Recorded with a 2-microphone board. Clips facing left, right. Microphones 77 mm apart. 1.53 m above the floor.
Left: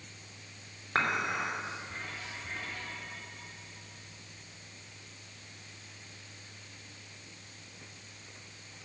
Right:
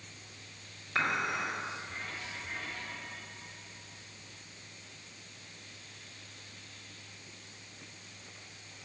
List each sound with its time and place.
0.9 s dishes clattering: 45° left (ahead or behind), 3 m